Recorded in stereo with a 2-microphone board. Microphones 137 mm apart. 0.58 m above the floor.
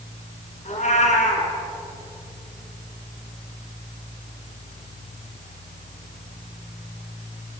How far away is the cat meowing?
About 2 m.